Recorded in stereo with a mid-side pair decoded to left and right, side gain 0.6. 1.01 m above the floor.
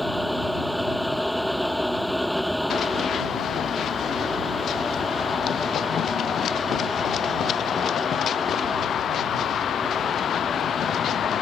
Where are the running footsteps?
45° left.